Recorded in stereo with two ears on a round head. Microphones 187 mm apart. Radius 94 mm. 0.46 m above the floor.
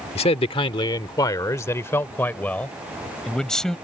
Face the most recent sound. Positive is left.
turn(degrees=5)  # may be behind; listen again after turning